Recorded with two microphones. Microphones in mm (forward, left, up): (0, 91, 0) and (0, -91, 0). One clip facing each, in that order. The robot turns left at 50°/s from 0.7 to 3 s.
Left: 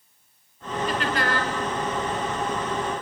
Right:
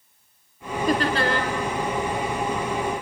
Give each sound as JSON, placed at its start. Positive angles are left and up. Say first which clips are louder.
{"t": 0.9, "sound": "laughter", "louder": "right 5 dB", "azimuth_deg": -130, "distance_m": 3.5}